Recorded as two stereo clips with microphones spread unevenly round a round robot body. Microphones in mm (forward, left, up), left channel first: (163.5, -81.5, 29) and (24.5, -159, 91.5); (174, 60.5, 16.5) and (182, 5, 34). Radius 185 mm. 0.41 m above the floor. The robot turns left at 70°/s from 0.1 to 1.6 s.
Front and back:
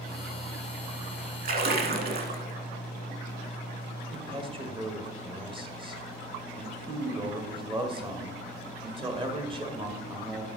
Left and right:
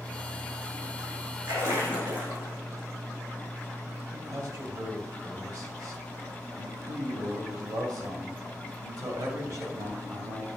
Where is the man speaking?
80° right, 2 m.